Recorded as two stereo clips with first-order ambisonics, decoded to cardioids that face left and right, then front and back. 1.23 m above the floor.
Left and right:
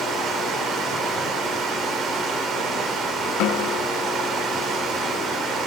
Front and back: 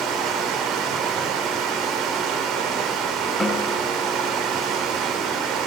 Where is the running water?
145° right, 2.5 m.